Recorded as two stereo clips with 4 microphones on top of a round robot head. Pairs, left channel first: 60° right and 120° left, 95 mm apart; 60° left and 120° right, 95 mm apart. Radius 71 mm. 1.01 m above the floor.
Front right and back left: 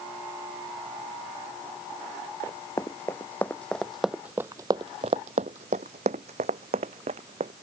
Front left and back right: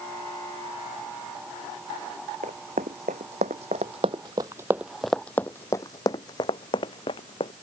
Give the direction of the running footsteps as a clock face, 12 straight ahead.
4 o'clock.